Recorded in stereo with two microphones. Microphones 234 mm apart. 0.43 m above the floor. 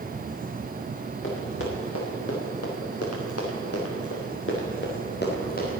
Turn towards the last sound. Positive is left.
turn(degrees=35)  # may be behind; listen again after turning